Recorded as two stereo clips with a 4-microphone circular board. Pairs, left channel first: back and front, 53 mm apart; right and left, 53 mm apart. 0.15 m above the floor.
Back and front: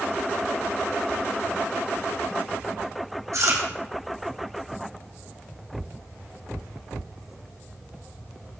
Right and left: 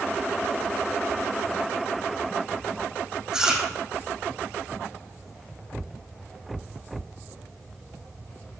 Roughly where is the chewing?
Ahead.